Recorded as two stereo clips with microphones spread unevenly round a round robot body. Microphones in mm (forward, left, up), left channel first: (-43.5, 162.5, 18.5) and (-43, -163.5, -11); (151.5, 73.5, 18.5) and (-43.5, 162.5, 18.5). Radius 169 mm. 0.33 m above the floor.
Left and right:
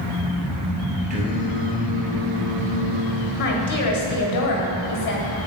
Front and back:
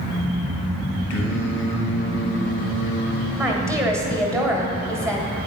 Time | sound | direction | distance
1.1 | singing | 20° right | 1.2 m
3.4 | a woman speaking | 85° left | 1.6 m